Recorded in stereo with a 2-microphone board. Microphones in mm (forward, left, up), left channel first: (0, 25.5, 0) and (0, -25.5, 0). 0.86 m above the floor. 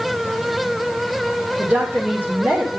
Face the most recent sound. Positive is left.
turn(degrees=-35)  # may be behind; listen again after turning